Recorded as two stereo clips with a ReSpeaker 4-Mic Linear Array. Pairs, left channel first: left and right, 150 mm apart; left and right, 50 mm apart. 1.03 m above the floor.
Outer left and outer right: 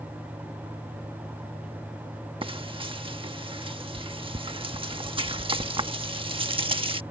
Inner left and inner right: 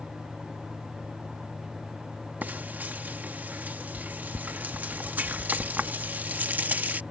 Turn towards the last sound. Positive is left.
turn(degrees=-35)  # may be behind; listen again after turning